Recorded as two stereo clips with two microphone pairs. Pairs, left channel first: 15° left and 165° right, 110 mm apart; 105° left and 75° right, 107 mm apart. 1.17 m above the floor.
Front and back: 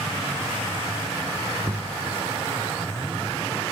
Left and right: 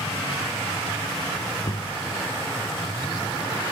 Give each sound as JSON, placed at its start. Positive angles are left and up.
{"t": 1.6, "sound": "knocking", "azimuth_deg": 135}